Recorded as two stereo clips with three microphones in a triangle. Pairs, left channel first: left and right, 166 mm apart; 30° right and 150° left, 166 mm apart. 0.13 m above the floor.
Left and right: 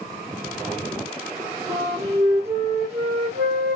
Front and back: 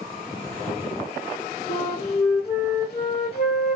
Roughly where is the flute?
Ahead right.